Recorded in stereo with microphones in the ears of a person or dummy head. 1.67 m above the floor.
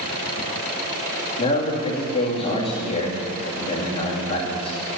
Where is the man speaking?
30° left (ahead or behind), 2.5 m.